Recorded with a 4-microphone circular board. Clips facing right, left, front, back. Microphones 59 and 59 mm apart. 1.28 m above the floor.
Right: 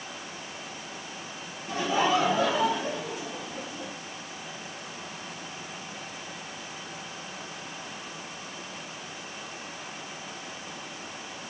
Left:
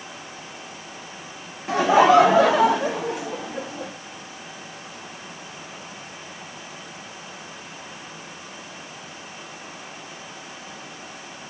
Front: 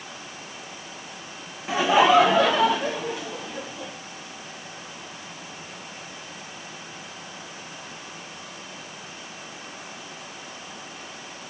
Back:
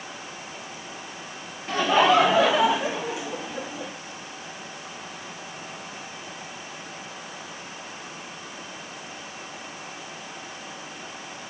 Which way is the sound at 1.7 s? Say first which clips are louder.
Left 10 dB, front 2 dB; 80° left.